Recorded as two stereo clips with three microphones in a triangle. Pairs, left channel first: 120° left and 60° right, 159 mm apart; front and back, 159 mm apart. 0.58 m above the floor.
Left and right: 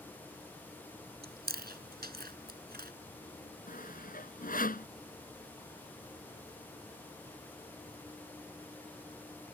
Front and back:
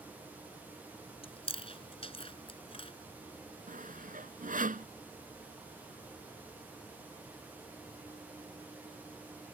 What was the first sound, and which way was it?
Chewing, 55° right.